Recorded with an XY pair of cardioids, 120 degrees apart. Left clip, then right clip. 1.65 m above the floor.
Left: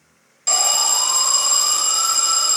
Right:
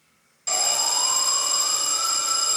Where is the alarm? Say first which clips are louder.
Left 5 dB; 50° left, 1.5 m.